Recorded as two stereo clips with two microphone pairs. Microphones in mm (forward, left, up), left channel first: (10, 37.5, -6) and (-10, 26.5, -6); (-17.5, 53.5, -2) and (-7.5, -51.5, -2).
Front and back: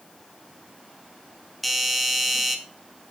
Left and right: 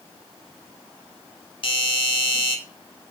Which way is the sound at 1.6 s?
110° left.